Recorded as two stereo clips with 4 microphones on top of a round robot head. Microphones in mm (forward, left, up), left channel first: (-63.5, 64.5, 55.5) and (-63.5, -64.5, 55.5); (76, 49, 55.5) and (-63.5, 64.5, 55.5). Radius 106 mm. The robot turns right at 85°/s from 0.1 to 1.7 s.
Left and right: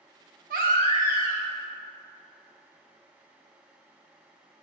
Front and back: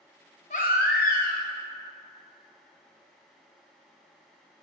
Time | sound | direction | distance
0.5 | a baby crying | 60° right | 0.5 m